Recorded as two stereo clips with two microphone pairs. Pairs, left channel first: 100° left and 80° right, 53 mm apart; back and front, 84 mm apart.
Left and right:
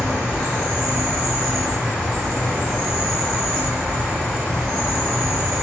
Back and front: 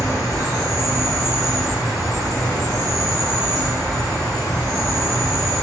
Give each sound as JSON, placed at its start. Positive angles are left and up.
{"t": 0.0, "sound": "an insect", "azimuth_deg": -70, "distance_m": 1.9}